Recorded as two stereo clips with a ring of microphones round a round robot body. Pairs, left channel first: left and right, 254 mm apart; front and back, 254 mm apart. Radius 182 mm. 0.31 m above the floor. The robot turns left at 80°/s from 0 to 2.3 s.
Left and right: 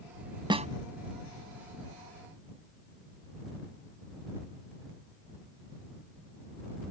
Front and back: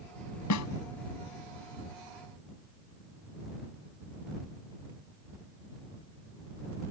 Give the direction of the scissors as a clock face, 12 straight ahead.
I don't hear scissors.